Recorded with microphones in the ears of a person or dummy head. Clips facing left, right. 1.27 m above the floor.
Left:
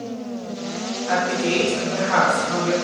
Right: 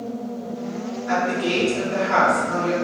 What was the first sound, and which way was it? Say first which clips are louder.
A woman speaking: left 1 dB; 25° right (ahead or behind).